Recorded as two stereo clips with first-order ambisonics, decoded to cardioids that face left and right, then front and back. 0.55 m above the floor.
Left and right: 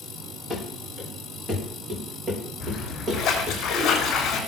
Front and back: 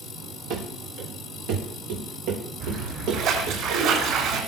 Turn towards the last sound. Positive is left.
turn(degrees=145)